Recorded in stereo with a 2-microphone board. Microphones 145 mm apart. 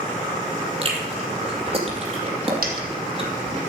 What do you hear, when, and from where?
0.8 s chewing: 40° right (ahead or behind), 2.5 m
2.6 s a dropped coin: 75° right (ahead or behind), 2 m